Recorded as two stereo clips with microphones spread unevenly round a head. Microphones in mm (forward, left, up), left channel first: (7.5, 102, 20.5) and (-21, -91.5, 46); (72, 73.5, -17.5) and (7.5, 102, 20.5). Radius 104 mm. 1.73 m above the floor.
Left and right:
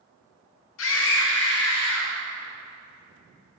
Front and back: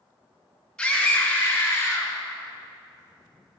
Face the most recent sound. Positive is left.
turn(degrees=35)